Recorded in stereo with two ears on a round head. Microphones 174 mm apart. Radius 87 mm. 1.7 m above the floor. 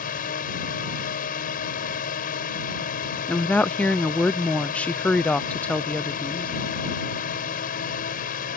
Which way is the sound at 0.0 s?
45° left (ahead or behind).